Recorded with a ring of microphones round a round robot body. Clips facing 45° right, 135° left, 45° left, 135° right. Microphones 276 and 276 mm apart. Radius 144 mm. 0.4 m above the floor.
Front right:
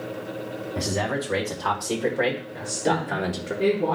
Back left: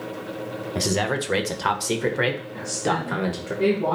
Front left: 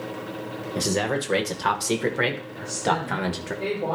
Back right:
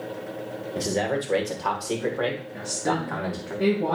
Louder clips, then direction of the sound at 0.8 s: Back left 3 dB, front left 1 dB; 115° left.